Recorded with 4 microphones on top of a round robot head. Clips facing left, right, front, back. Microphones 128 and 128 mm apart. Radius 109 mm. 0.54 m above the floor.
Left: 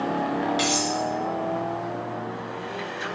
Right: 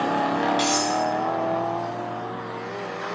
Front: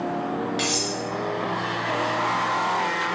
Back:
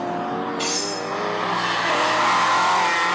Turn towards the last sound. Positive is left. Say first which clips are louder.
# right 2 dB, back 1 dB
turn(degrees=0)